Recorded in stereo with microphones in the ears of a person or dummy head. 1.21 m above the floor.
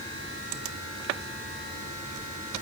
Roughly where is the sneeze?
No sneeze in this recording.